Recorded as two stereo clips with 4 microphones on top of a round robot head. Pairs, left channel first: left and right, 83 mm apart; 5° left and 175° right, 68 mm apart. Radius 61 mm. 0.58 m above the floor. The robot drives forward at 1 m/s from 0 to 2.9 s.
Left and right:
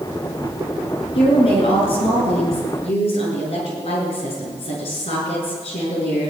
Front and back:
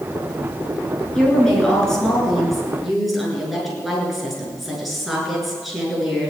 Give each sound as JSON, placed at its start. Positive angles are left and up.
{"t": 1.1, "sound": "a woman speaking", "azimuth_deg": 85, "distance_m": 7.5}